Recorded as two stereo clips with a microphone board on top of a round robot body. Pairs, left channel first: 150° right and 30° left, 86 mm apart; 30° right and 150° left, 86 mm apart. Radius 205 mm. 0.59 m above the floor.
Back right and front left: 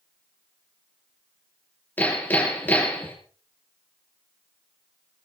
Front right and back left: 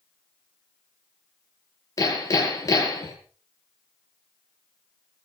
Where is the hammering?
80° right, 7 m.